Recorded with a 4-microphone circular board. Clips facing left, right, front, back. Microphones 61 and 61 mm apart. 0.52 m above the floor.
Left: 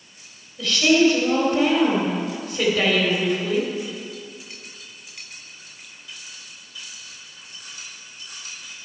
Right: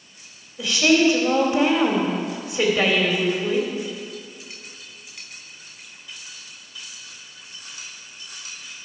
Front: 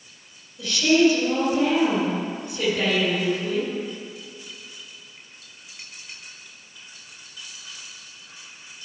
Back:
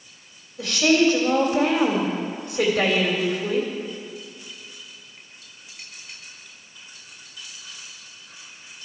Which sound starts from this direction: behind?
A woman speaking, at 0.6 s.